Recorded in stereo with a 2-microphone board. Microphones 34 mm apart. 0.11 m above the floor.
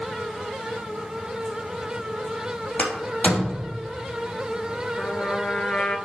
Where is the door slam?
45° left (ahead or behind), 3.5 m.